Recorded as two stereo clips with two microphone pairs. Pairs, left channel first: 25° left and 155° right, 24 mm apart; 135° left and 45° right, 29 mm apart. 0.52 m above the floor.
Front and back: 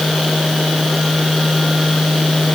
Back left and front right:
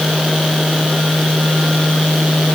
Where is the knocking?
No knocking in this recording.